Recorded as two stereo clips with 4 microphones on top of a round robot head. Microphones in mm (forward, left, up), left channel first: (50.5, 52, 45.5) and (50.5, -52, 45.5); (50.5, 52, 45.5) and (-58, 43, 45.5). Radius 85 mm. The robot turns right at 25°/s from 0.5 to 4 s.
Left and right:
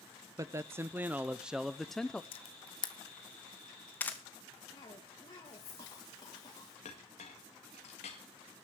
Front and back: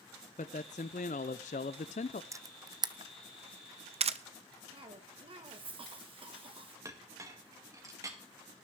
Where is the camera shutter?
120° left, 0.8 m; by 4.2 s 165° left, 0.8 m.